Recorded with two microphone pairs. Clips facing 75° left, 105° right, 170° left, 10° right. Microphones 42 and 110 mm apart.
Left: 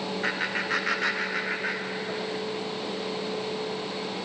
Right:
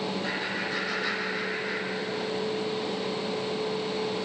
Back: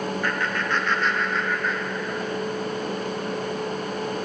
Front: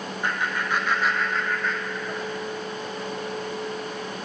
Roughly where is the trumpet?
No trumpet in this recording.